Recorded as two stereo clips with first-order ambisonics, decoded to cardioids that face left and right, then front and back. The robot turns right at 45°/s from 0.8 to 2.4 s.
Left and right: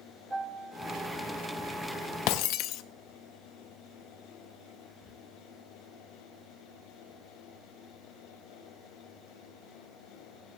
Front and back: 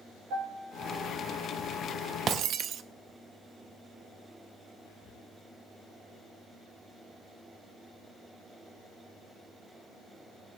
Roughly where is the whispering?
Ahead.